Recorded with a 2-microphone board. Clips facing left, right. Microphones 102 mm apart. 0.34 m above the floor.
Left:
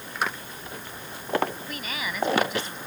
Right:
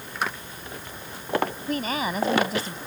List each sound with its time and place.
1.7 s a woman speaking: 40° right (ahead or behind)